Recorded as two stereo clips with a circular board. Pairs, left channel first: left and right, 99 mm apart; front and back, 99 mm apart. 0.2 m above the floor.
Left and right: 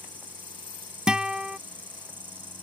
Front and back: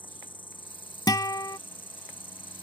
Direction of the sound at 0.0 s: 20° right.